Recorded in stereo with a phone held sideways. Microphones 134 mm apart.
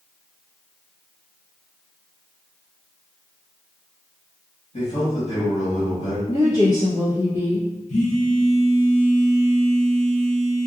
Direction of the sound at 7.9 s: 70° left (ahead or behind).